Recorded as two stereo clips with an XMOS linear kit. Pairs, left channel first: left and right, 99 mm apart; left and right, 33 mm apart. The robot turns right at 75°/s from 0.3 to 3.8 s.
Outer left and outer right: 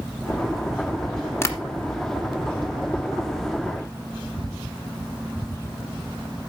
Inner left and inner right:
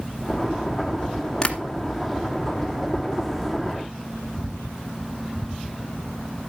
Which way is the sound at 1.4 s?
25° left (ahead or behind).